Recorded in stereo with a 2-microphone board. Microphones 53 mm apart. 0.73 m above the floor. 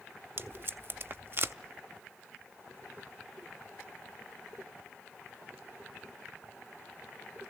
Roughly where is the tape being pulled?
Right.